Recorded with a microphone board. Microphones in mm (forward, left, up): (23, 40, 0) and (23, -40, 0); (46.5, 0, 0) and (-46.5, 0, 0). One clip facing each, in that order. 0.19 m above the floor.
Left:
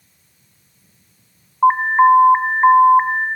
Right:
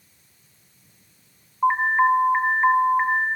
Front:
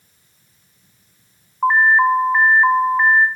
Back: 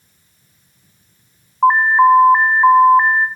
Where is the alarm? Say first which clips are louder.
Left 7 dB, back 4 dB; 125° left, 1.6 m.